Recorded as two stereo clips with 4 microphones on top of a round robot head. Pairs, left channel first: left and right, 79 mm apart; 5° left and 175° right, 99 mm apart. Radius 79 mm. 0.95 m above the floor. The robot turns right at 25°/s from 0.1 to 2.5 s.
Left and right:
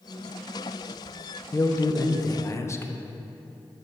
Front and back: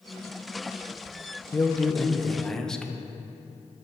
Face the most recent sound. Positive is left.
turn(degrees=85)